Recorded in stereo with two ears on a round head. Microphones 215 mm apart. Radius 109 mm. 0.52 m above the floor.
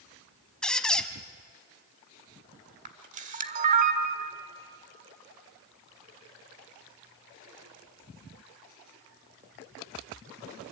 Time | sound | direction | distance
0.6 | a squeak | 5° left (ahead or behind) | 1.2 m
2.9 | a camera shutter | 30° right (ahead or behind) | 1.6 m